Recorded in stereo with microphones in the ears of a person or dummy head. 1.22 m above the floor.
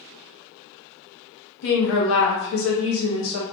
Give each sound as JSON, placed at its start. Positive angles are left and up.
{"t": 1.6, "sound": "a woman speaking", "side_deg": 70, "distance_m": 0.8}